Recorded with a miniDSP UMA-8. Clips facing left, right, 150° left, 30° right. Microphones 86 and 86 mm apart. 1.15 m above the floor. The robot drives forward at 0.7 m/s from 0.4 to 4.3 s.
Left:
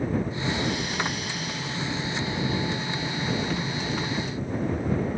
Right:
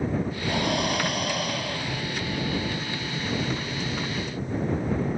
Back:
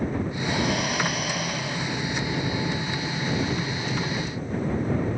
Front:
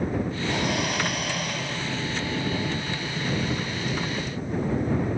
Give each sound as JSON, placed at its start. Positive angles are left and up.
{"t": 0.5, "sound": "breathing", "azimuth_deg": -120}